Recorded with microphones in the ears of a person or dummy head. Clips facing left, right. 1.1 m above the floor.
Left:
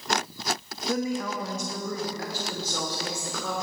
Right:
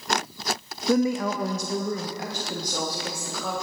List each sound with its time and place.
0.9 s a woman speaking: 65° right (ahead or behind), 0.7 m; by 3.5 s 5° right (ahead or behind), 1.9 m